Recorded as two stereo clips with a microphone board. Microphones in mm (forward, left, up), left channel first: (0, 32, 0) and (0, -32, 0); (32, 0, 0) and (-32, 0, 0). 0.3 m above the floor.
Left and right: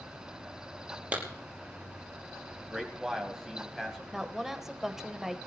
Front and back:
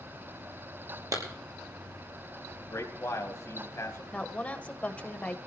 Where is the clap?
160° right, 5 m.